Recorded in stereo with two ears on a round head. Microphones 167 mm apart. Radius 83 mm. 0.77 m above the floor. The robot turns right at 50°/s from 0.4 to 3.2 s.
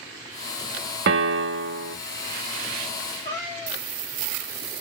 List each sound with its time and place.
1.1 s a piano: 115° right, 0.6 m; by 2.0 s 70° right, 0.6 m
3.2 s a cat meowing: 20° left (ahead or behind), 1.5 m